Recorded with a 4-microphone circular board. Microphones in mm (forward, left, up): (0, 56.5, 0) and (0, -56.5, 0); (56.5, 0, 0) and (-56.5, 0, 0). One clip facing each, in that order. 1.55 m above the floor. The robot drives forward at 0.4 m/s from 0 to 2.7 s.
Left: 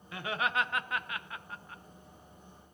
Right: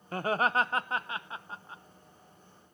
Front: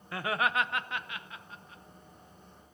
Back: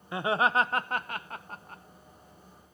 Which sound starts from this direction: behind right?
Laughter, at 0.1 s.